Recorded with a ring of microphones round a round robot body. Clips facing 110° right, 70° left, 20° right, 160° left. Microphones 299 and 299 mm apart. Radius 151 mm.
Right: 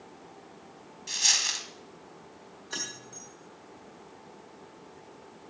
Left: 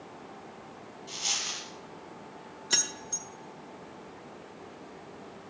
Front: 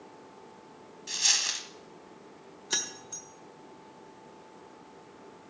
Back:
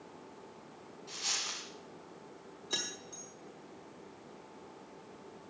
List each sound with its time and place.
1.1 s a dropped coin: 60° right, 1.5 m
2.7 s keys jangling: 35° left, 1.6 m